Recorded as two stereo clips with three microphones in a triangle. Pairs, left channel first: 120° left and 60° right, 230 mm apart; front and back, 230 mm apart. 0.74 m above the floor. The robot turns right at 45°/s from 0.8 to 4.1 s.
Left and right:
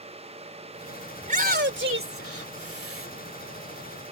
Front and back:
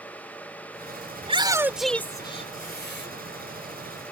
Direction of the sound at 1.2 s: 120° right.